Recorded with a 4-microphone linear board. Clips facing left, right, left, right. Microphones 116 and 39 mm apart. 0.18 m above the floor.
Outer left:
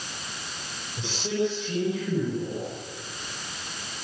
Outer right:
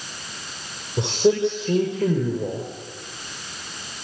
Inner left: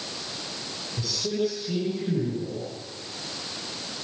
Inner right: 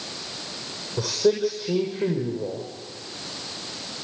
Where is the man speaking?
65° right (ahead or behind), 7 m.